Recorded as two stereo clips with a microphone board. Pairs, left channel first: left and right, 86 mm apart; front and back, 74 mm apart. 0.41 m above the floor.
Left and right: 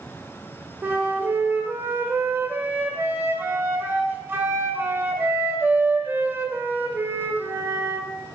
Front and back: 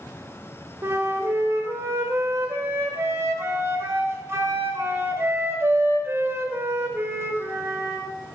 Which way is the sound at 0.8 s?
145° right.